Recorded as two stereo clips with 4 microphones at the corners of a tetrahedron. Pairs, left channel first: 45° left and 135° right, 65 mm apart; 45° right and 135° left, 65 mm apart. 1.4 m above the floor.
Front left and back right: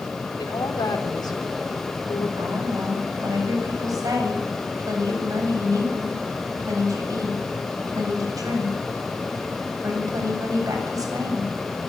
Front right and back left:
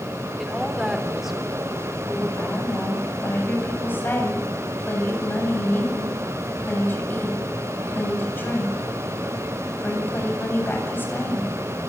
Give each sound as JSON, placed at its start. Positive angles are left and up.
{"t": 0.4, "sound": "a woman speaking", "azimuth_deg": 50, "distance_m": 3.5}
{"t": 2.4, "sound": "a woman speaking", "azimuth_deg": -105, "distance_m": 8.0}